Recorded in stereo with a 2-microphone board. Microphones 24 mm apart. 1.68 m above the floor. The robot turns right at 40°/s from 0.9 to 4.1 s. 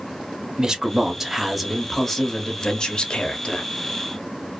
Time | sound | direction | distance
0.6 | a man speaking | 25° right | 0.7 m